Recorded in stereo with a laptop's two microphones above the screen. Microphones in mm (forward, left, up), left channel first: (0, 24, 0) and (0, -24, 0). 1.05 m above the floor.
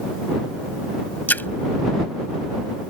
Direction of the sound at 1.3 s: 40° left (ahead or behind).